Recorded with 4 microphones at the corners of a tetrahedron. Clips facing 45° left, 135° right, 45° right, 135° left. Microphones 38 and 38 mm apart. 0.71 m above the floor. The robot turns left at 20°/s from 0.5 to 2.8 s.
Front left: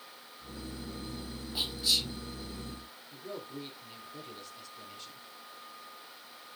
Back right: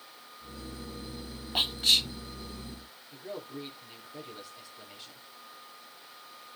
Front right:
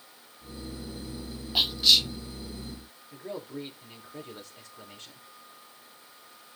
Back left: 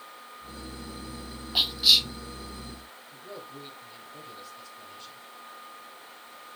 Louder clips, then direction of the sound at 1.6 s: Back right 5 dB, even; 135° right.